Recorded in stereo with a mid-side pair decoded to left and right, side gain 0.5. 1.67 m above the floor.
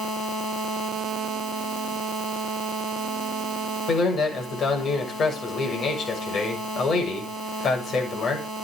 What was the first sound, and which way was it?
A man speaking, 50° left.